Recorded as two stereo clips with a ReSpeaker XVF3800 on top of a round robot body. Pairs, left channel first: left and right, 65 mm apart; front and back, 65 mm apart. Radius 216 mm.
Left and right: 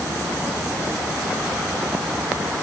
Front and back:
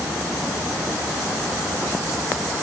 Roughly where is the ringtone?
I don't hear a ringtone.